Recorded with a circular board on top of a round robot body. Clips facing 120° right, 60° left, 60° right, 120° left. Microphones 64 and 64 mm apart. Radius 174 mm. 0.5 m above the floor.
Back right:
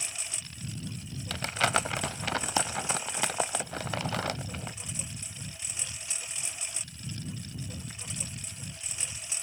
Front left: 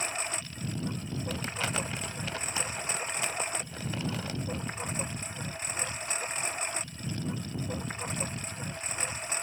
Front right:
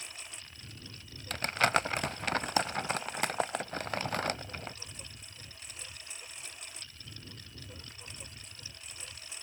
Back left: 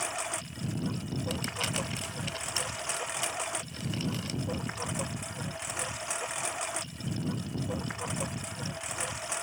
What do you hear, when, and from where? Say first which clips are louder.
0.0 s a lawn mower: front left 8 dB, back left 14 dB; 105° left
1.3 s crumpling: back right 7 dB, front right 10 dB; 105° right